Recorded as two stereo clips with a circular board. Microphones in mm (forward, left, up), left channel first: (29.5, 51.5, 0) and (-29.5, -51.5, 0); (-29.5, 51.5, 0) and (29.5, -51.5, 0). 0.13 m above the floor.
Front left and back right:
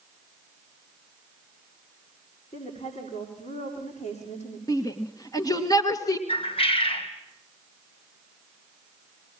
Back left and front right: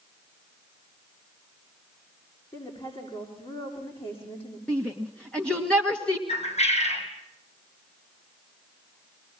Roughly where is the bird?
Left.